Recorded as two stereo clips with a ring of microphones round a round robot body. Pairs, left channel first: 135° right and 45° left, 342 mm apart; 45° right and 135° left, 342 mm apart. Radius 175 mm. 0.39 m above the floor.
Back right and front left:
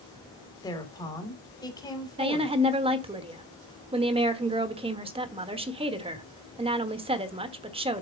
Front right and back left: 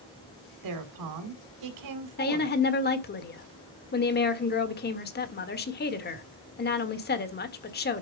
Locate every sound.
0.6 s a woman speaking: 150° left, 2.5 m
2.2 s a woman speaking: 15° right, 1.3 m